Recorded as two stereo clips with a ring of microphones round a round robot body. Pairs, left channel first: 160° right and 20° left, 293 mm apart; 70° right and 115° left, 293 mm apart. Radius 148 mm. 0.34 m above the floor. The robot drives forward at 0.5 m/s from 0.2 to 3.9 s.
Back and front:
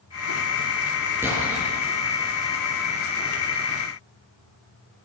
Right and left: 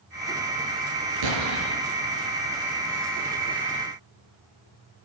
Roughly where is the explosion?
Left.